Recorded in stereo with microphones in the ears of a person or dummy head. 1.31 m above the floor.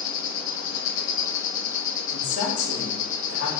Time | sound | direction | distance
0.0 | an insect | 45° left (ahead or behind) | 1.1 m
2.1 | a woman speaking | 65° left (ahead or behind) | 1.2 m